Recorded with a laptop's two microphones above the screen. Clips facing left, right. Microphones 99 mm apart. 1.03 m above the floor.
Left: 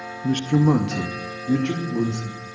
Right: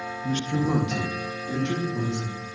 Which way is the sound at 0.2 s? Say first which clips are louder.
Left 7 dB; 50° left (ahead or behind).